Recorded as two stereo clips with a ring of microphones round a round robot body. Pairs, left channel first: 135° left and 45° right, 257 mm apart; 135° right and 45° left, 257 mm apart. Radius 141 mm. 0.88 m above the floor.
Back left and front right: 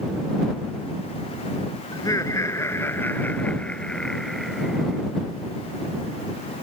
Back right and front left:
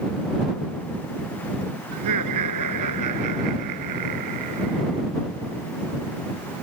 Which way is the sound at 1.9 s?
60° left.